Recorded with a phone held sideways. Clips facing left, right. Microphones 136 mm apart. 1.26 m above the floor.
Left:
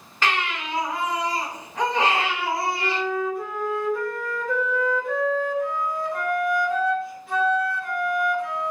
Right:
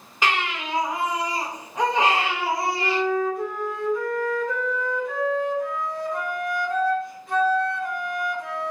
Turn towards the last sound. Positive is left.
turn(degrees=0)  # may be behind; listen again after turning